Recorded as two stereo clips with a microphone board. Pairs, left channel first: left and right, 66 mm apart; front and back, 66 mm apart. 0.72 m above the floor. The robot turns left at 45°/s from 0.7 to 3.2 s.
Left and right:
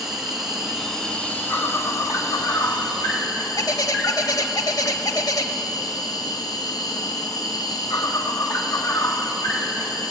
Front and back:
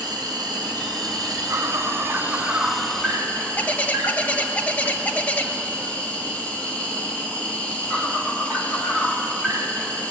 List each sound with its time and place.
0.0 s an insect: 175° right, 2.5 m; by 10.1 s 70° left, 2.5 m
3.6 s a bird: 65° left, 1.0 m